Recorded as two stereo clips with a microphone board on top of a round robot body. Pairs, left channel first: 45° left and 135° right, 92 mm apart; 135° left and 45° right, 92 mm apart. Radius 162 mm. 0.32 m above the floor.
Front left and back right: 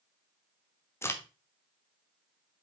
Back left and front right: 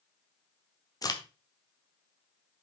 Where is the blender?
I don't hear a blender.